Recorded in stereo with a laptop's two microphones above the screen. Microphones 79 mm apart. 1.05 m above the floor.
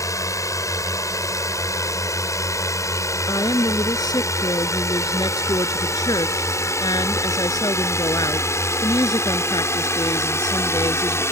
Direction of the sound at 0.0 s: 40° left (ahead or behind).